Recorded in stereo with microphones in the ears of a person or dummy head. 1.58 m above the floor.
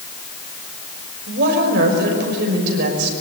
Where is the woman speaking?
70° right (ahead or behind), 6 m.